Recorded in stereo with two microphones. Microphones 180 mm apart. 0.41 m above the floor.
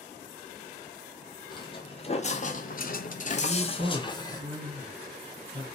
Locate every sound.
1.5 s footsteps: 25° left (ahead or behind), 1.0 m; by 4.4 s 20° left (ahead or behind), 1.0 m
3.4 s a woman speaking: 55° right (ahead or behind), 1.9 m